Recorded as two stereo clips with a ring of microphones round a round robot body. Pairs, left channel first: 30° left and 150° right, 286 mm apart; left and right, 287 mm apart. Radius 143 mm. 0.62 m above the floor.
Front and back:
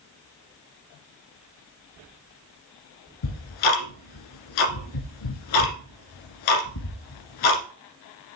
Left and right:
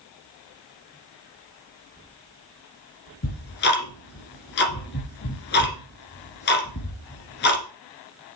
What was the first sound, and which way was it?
Ticking, 35° left.